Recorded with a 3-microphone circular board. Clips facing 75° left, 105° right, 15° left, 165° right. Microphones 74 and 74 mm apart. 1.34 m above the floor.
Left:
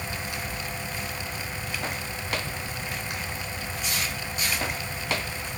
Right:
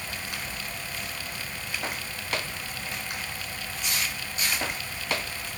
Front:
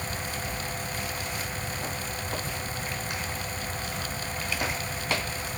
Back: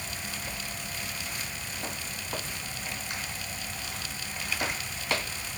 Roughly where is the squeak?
No squeak in this recording.